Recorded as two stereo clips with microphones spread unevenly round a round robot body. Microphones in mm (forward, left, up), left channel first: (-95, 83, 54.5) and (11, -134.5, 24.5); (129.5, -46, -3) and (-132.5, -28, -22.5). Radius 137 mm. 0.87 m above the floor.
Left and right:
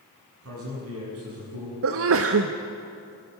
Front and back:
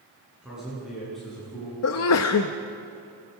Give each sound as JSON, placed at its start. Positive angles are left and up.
{"t": 0.4, "sound": "a man speaking", "azimuth_deg": -95, "distance_m": 8.5}
{"t": 1.8, "sound": "a sneeze", "azimuth_deg": -40, "distance_m": 0.8}